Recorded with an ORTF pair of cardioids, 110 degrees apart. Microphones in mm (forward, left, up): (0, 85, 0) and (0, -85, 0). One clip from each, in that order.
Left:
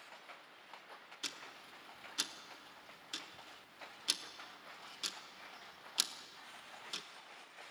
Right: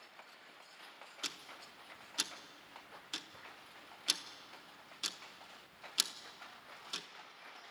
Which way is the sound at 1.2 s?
10° right.